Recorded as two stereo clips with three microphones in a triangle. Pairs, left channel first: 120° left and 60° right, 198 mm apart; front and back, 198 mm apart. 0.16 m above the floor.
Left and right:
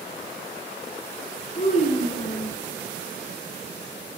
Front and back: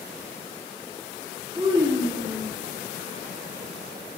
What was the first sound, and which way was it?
A child speaking, 135° left.